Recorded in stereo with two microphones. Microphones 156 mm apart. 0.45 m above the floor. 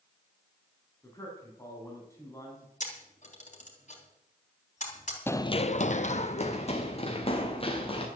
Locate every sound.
1.0 s a man speaking: 20° left (ahead or behind), 4 m
2.8 s a camera shutter: 55° left (ahead or behind), 3 m
5.3 s running footsteps: 15° left (ahead or behind), 0.6 m; by 8.1 s 35° left (ahead or behind), 3 m